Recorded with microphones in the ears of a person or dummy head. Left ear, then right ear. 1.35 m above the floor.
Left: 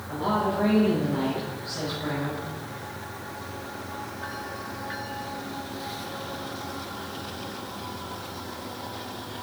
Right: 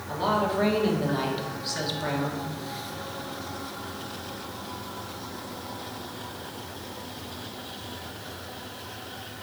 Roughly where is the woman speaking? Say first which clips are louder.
Right 1 dB; right.